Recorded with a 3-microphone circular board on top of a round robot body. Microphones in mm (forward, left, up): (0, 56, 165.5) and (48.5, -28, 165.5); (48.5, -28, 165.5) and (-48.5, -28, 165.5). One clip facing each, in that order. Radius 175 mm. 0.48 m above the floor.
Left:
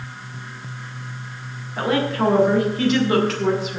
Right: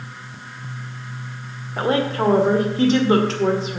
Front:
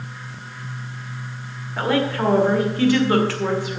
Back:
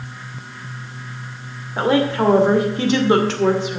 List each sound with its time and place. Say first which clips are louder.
1.8 s a woman speaking: right 1 dB, back 4 dB; 115° right, 2.5 m